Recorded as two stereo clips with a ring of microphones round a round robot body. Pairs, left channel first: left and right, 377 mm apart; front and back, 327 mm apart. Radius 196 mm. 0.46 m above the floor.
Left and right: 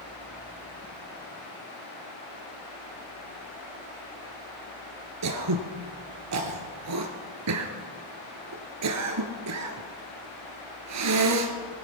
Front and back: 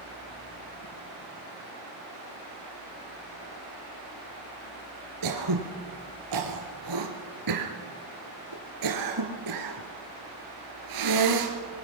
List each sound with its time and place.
5.2 s throat clearing: 140° right, 2.5 m